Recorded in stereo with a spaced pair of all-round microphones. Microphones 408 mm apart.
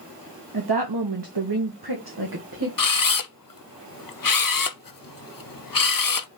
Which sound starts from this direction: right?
A woman speaking, at 0.5 s.